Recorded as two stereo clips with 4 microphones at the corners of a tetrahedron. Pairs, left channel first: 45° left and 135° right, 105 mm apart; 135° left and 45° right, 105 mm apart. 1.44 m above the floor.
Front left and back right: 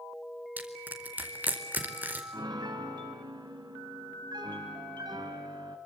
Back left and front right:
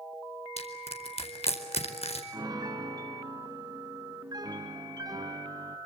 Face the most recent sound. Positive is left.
turn(degrees=-90)